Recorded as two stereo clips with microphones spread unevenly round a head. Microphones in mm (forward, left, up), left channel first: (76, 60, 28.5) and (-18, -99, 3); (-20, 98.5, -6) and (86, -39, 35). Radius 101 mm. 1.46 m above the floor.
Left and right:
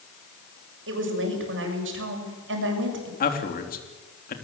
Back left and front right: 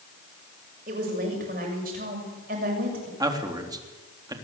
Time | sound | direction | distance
0.9 | a woman speaking | 105° right | 7 m
3.2 | a man speaking | 15° left | 3.5 m